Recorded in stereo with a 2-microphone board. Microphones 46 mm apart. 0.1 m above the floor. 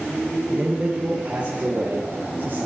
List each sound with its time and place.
0.5 s a man speaking: 20° right (ahead or behind), 3 m; by 2.7 s 40° right (ahead or behind), 4.5 m